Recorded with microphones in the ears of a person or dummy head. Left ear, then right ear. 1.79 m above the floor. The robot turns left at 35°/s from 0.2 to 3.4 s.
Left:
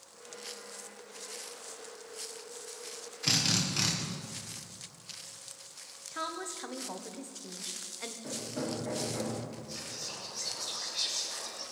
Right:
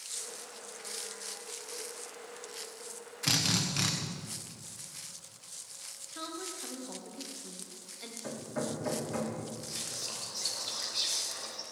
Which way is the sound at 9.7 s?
20° right (ahead or behind).